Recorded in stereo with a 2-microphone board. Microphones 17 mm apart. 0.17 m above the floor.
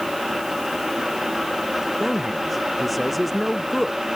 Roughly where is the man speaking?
Centre.